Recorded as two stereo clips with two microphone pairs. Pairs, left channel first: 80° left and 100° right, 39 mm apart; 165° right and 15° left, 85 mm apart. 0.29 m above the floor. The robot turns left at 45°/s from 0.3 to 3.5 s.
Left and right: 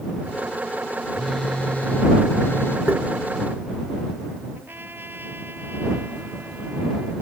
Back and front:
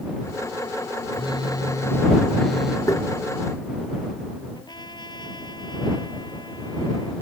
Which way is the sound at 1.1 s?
165° left.